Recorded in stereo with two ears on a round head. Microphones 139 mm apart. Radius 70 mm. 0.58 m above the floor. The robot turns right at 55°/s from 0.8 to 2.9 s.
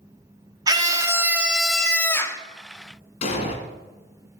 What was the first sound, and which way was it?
A scream, 50° right.